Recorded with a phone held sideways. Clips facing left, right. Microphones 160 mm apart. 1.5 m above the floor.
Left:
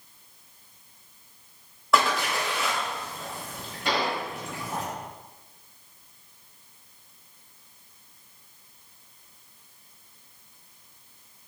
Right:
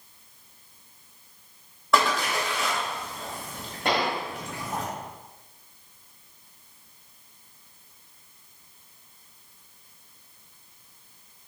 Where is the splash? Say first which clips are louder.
Even; centre (ahead or behind), 1.6 m.